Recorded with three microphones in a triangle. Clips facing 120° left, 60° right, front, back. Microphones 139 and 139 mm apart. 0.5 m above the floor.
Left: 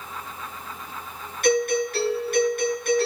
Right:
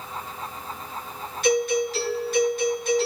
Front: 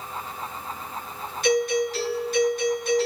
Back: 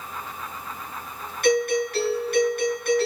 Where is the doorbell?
150° left, 9.5 m.